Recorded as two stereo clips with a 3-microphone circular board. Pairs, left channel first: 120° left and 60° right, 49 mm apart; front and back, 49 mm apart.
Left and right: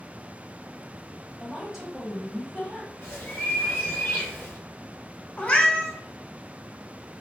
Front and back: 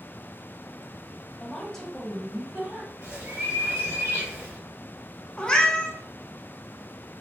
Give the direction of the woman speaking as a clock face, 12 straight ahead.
12 o'clock.